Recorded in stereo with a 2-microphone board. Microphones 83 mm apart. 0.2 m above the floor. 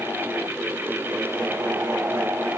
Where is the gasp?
I don't hear a gasp.